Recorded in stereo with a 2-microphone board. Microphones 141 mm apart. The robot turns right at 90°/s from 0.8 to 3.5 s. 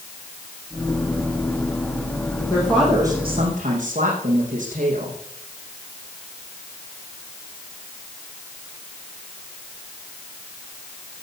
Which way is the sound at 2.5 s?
155° left.